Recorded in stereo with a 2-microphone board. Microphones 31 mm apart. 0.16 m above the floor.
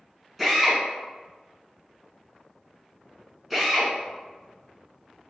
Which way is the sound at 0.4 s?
5° right (ahead or behind).